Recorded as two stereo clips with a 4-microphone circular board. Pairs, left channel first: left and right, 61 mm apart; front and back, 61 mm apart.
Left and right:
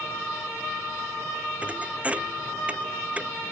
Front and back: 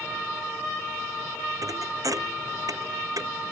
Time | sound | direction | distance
1.6 | a thud | 160° right | ?